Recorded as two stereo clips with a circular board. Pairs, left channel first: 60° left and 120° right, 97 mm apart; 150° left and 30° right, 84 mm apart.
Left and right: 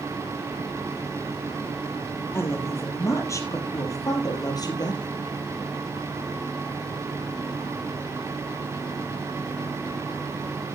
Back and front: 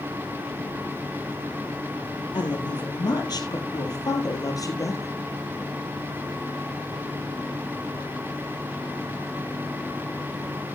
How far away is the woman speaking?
About 4 m.